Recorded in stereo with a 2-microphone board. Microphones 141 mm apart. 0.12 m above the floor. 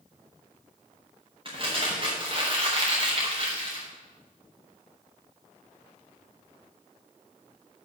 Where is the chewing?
I don't hear chewing.